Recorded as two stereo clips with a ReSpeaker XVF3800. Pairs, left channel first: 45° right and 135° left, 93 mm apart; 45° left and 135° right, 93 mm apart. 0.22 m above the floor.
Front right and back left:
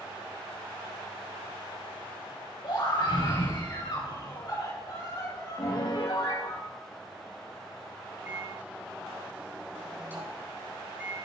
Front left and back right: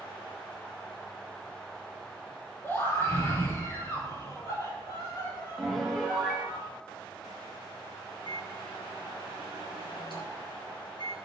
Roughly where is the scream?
Ahead.